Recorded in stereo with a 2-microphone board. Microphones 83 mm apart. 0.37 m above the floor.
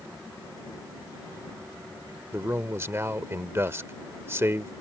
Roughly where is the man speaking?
Right.